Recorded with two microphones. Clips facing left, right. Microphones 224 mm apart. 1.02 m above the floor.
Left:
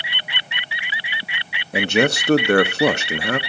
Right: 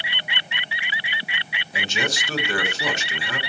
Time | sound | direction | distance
1.7 | a man speaking | 60° left (ahead or behind) | 1.0 m